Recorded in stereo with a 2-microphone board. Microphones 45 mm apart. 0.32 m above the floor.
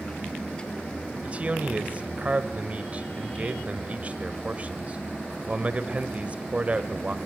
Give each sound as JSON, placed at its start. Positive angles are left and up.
{"t": 1.2, "sound": "a man speaking", "side_deg": -30, "distance_m": 1.1}